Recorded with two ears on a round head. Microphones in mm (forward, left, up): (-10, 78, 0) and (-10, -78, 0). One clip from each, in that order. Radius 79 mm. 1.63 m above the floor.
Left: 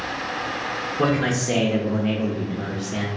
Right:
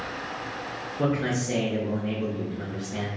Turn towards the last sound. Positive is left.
turn(degrees=35)  # may be behind; listen again after turning